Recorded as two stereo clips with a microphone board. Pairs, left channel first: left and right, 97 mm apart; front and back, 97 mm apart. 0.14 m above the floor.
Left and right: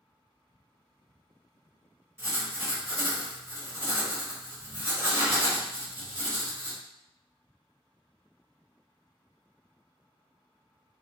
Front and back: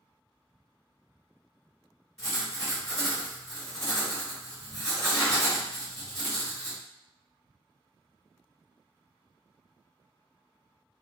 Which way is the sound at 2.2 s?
75° right.